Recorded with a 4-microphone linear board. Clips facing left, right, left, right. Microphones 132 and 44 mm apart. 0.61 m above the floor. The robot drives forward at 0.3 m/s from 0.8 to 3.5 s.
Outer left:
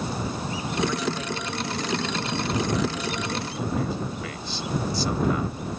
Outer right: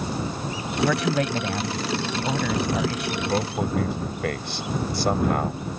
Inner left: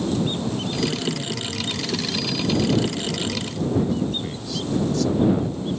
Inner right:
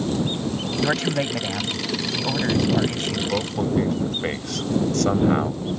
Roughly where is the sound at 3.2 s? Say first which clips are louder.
Outer right 5 dB, inner right 2 dB; right.